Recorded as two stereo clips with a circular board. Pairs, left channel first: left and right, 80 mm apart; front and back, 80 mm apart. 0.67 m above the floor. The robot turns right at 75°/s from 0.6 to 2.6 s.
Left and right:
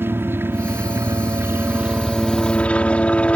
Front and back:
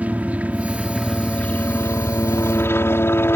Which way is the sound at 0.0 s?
125° right.